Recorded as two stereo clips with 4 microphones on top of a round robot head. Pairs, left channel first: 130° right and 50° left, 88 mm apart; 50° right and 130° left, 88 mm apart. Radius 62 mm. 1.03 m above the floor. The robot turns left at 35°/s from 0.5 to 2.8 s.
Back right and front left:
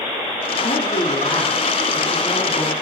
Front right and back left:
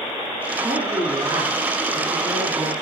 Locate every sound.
0.6 s a man speaking: 140° right, 3 m; by 2.7 s 145° left, 3 m